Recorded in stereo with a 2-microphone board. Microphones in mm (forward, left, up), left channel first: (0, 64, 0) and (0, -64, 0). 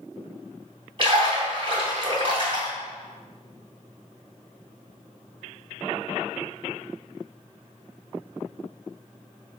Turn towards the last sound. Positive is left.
turn(degrees=-40)  # may be behind; listen again after turning